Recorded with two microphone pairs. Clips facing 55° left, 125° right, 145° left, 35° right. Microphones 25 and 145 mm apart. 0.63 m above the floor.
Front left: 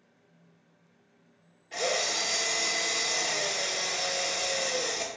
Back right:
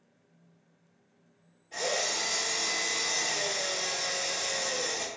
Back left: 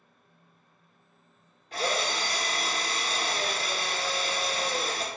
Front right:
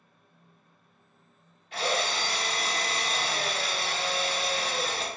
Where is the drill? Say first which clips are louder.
Front left 2 dB, even; 100° left, 1.0 m.